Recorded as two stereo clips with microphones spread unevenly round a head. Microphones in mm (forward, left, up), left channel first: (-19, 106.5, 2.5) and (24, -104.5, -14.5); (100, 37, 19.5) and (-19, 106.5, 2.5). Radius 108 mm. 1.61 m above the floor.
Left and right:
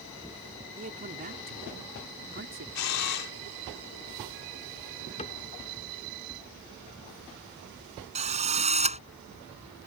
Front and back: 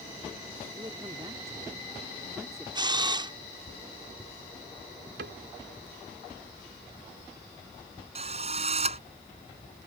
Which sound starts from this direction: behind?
A cupboard door, at 5.2 s.